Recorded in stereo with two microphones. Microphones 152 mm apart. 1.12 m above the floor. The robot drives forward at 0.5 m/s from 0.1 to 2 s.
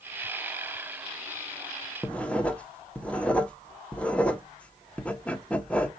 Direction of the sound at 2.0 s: 10° left (ahead or behind).